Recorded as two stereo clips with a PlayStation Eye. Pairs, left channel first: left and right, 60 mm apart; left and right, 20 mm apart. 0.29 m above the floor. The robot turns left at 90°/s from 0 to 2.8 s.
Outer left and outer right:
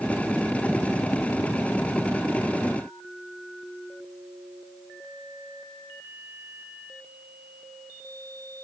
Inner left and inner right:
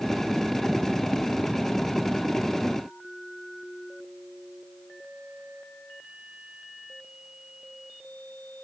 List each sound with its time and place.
Only background noise.